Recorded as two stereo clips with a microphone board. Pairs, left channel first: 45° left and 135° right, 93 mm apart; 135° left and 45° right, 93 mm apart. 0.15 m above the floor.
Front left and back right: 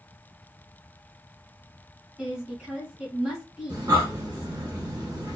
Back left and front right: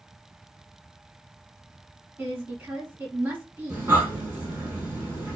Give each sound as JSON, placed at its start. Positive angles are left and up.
{"t": 2.2, "sound": "a woman speaking", "azimuth_deg": -70, "distance_m": 1.6}
{"t": 3.7, "sound": "breathing", "azimuth_deg": -100, "distance_m": 1.4}